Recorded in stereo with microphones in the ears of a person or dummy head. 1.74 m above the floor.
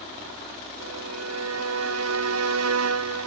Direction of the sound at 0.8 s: 85° right.